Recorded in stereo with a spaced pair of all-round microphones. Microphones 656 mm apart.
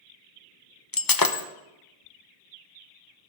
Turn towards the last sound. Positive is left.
turn(degrees=35)  # may be behind; listen again after turning